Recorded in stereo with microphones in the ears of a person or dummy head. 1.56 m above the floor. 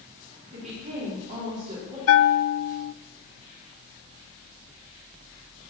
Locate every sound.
0.5 s a woman speaking: 40° right (ahead or behind), 4.5 m
2.1 s a bell: 85° left, 0.6 m